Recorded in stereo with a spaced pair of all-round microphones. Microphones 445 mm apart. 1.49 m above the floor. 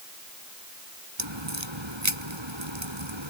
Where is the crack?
80° right.